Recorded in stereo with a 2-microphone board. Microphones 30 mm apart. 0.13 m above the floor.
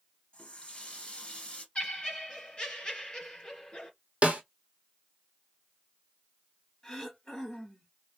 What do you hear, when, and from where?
0.3 s a running tap: 40° left (ahead or behind), 1.4 m
1.8 s laughter: 30° left (ahead or behind), 2 m
4.2 s a snare drum: 50° right (ahead or behind), 1.0 m
6.8 s throat clearing: 15° left (ahead or behind), 1.7 m